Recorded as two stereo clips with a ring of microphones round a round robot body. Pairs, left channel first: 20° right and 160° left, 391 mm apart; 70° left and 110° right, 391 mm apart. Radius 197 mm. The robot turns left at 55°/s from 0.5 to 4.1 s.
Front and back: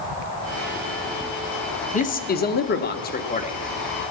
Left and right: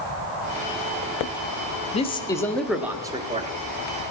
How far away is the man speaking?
About 0.9 m.